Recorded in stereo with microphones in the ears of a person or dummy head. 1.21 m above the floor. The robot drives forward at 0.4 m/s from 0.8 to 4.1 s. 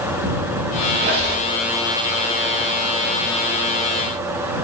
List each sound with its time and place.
0.9 s a squeak: 35° right (ahead or behind), 1.5 m; by 1.4 s 40° right (ahead or behind), 1.3 m